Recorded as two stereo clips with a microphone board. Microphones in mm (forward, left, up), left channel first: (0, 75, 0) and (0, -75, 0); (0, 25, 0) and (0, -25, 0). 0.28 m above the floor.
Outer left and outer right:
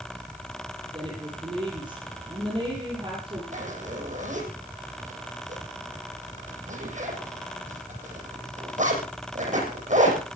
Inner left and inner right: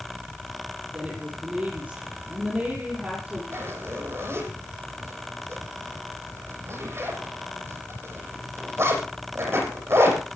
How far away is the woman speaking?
About 9 m.